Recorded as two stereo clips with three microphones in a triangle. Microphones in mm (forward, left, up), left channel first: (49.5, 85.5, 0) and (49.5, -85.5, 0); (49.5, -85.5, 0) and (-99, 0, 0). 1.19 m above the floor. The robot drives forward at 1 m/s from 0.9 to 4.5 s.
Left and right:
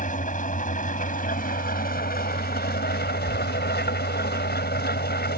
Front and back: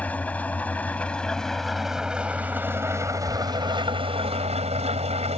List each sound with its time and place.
0.0 s an engine running: 50° left; by 5.4 s 100° left